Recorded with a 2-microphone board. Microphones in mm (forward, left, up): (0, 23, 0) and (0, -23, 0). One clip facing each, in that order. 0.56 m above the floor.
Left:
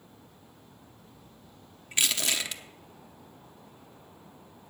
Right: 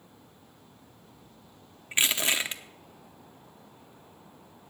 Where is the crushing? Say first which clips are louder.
Right 3 dB; 30° right (ahead or behind), 0.7 m.